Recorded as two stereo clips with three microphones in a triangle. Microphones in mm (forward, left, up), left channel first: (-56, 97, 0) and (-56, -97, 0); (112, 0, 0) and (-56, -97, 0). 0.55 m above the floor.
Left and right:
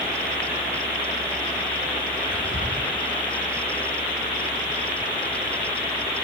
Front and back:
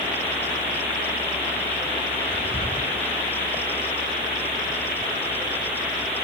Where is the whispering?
115° left, 6.5 m.